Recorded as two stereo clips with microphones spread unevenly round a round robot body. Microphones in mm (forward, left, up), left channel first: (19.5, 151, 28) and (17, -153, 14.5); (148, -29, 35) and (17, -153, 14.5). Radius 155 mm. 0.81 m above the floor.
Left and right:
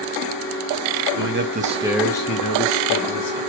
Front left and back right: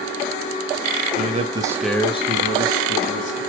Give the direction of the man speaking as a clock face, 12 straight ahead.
4 o'clock.